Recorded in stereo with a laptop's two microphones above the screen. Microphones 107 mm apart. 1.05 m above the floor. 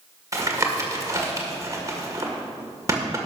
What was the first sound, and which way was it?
Tapping, 30° right (ahead or behind).